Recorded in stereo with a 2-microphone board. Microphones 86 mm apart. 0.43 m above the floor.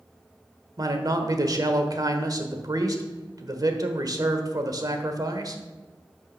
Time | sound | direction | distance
0.8 | a man speaking | 45° right (ahead or behind) | 1.2 m